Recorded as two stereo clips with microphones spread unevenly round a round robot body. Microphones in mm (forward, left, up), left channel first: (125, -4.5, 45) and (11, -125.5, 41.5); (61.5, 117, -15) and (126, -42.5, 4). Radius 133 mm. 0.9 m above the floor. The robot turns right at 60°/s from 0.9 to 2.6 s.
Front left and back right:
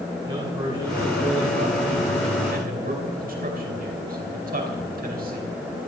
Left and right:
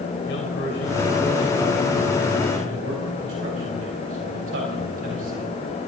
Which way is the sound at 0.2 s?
155° left.